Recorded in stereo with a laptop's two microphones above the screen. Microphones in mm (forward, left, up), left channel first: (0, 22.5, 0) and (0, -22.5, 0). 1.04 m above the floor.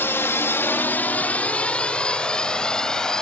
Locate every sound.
0.0 s a drone: 60° left (ahead or behind); by 3.2 s 15° left (ahead or behind)